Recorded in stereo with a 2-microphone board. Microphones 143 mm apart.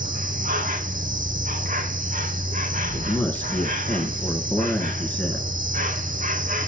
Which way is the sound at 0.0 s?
70° right (ahead or behind).